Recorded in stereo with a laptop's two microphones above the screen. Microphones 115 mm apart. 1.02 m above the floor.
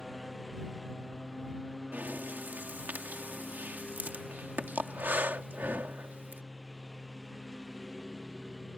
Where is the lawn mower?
Centre (ahead or behind).